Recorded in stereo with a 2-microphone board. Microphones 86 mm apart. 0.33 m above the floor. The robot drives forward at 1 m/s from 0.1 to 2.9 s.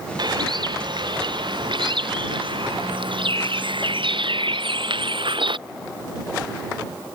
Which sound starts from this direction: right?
A bird, at 0.2 s.